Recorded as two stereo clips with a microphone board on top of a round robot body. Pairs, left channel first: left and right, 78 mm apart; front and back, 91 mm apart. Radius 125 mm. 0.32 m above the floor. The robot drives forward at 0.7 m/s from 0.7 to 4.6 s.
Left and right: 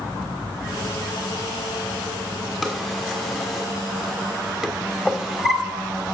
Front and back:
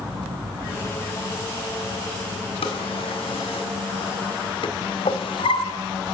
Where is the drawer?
5° right, 2.5 m; by 5.6 s 10° right, 1.3 m.